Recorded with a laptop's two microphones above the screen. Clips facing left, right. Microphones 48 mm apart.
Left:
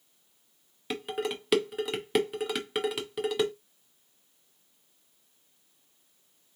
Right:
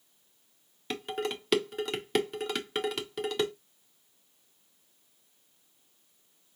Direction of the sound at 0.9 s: 5° left (ahead or behind).